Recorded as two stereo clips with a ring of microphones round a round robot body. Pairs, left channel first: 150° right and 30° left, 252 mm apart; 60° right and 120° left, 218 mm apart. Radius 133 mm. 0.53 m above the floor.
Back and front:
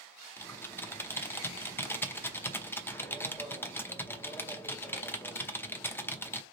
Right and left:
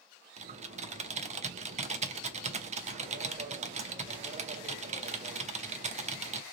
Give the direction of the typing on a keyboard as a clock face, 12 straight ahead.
7 o'clock.